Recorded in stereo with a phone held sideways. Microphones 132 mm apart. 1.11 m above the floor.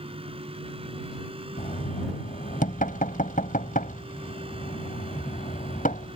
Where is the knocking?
85° left.